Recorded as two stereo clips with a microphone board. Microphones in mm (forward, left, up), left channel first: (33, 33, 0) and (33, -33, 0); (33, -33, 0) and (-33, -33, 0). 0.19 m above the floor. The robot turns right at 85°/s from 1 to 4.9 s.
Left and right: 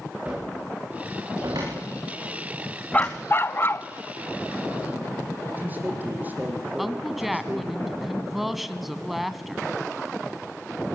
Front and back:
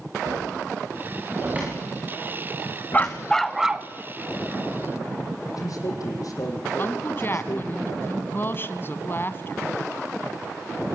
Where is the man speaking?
25° right, 6.5 m.